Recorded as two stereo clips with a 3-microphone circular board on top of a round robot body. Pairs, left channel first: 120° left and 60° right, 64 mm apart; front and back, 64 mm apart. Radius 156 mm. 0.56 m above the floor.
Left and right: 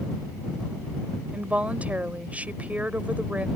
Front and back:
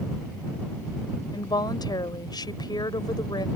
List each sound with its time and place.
1.3 s a woman speaking: 10° left